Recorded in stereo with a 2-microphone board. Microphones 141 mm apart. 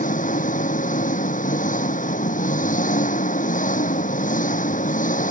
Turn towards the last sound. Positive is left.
turn(degrees=70)  # may be behind; listen again after turning